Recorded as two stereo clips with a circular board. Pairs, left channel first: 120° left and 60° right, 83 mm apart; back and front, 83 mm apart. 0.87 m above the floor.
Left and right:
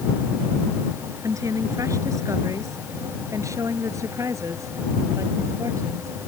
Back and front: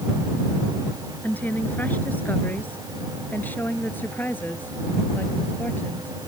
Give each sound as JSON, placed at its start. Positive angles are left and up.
{"t": 1.2, "sound": "a woman speaking", "azimuth_deg": -110}